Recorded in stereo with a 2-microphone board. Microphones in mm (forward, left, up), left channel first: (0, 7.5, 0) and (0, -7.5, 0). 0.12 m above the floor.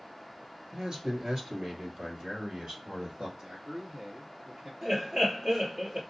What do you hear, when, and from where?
0.7 s a man speaking: 45° right (ahead or behind), 1.8 m; by 3.3 s 65° right (ahead or behind), 3 m
3.4 s a man speaking: 55° right (ahead or behind), 1.9 m
4.8 s laughter: 50° right (ahead or behind), 2.5 m